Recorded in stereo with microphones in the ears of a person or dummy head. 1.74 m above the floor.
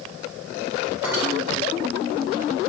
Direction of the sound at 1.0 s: 15° right (ahead or behind).